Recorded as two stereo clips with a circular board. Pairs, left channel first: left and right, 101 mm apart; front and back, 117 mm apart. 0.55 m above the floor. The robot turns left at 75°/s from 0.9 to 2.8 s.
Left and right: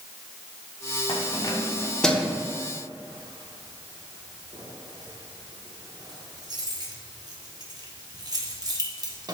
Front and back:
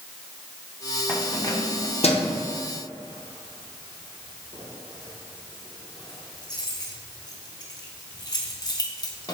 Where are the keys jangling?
80° left, 0.6 m; by 9.3 s 50° right, 0.6 m.